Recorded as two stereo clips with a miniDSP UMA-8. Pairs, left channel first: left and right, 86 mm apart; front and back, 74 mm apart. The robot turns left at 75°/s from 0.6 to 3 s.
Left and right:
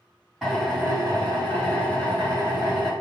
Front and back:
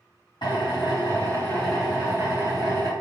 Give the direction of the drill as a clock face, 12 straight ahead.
12 o'clock.